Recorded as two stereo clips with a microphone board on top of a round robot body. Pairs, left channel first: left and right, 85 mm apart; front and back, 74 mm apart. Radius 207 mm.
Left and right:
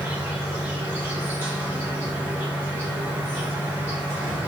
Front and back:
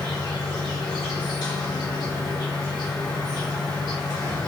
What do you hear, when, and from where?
0.0 s an insect: 25° right, 1.1 m